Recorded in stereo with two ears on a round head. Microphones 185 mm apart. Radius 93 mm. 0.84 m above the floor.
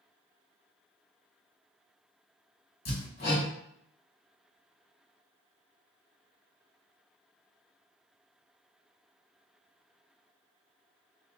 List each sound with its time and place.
2.9 s hammering: 45° left (ahead or behind), 1.2 m